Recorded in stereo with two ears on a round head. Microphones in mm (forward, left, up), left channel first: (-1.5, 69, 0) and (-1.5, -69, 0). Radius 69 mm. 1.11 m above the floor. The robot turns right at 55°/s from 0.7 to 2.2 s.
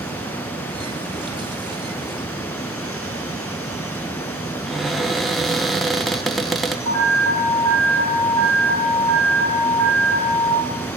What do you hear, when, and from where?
4.7 s a cupboard door: centre (ahead or behind), 0.7 m
6.8 s an alarm: 65° left (ahead or behind), 5.5 m